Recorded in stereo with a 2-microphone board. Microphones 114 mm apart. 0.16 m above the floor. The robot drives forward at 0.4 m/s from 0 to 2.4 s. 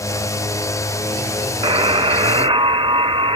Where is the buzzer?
45° right (ahead or behind), 0.6 m; by 3.4 s 50° right (ahead or behind), 0.6 m.